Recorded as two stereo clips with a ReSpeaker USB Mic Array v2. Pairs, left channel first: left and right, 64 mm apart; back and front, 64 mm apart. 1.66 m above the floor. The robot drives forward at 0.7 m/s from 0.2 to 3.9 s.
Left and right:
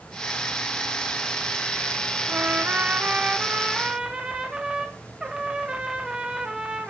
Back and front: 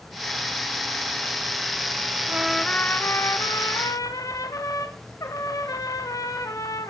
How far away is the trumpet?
About 0.5 m.